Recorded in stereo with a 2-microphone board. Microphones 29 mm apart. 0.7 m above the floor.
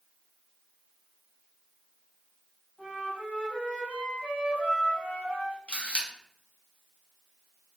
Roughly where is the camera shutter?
Left.